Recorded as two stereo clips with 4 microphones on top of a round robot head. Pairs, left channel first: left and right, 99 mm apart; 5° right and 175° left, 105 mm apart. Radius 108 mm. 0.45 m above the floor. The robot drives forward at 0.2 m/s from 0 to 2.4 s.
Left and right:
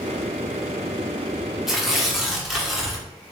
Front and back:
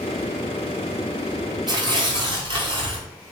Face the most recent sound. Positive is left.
turn(degrees=-175)